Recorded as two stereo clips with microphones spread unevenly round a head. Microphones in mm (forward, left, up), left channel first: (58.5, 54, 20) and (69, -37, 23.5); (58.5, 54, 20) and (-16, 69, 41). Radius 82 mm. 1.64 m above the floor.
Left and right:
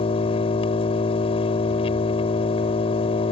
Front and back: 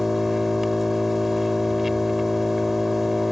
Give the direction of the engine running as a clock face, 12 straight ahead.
9 o'clock.